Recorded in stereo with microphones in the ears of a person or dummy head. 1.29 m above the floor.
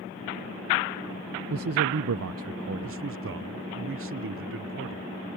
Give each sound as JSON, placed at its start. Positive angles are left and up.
{"t": 1.5, "sound": "a man speaking", "side_deg": -75}
{"t": 2.8, "sound": "a man speaking", "side_deg": -65}